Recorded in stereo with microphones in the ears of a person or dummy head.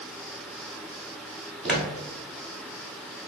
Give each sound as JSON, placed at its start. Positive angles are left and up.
{"t": 1.6, "sound": "footsteps", "side_deg": -5, "distance_m": 1.3}